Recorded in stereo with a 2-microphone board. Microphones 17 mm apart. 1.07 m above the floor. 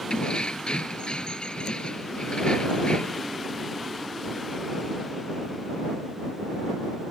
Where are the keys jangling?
85° left.